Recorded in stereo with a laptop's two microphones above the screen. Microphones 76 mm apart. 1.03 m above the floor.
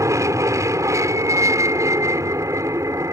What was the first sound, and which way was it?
An aircraft, 45° right (ahead or behind).